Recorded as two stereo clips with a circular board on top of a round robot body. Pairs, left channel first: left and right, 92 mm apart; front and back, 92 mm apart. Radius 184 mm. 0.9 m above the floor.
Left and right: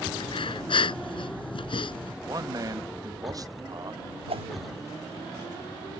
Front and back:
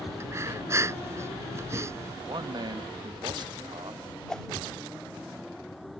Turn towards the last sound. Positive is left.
turn(degrees=-80)